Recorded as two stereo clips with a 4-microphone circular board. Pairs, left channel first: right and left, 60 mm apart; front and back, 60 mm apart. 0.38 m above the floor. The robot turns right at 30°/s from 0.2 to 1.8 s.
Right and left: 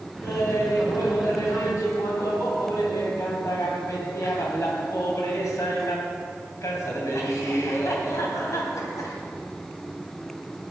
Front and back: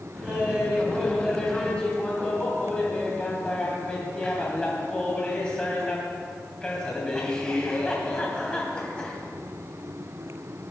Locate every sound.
0.2 s laughter: 120° right, 2.5 m; by 9.2 s 75° right, 2.5 m